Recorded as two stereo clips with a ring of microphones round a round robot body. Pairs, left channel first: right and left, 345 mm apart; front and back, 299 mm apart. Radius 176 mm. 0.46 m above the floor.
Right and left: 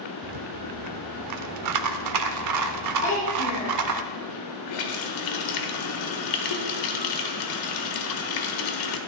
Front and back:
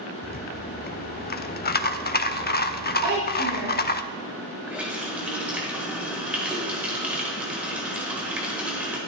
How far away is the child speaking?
About 3.5 m.